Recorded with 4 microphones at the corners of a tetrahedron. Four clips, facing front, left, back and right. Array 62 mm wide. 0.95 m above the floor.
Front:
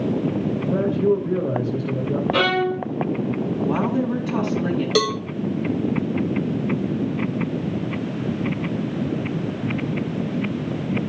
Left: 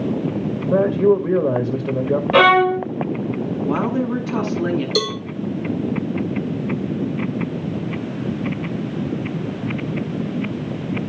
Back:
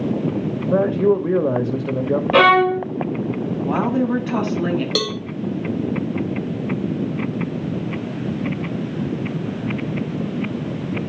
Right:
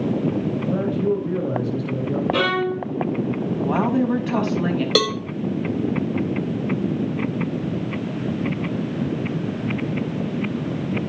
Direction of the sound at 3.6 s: 130° right.